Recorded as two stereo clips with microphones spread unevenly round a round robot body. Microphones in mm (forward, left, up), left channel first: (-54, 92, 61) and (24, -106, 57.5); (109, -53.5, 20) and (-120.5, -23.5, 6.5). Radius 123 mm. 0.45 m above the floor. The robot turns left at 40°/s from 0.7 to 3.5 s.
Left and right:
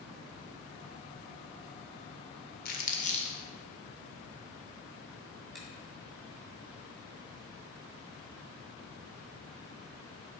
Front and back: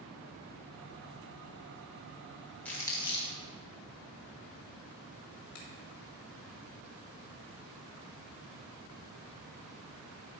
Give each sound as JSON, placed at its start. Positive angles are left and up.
{"t": 2.6, "sound": "crumpling", "azimuth_deg": 80, "distance_m": 1.7}
{"t": 5.5, "sound": "a finger snap", "azimuth_deg": 20, "distance_m": 2.5}